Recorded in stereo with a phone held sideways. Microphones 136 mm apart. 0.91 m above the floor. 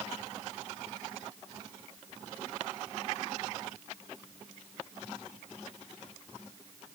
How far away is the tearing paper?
I don't hear tearing paper.